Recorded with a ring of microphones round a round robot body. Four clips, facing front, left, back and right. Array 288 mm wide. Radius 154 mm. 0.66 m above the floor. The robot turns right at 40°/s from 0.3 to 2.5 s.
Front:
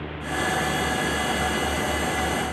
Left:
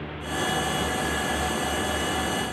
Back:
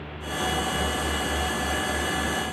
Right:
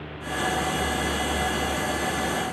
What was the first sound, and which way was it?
Only background noise.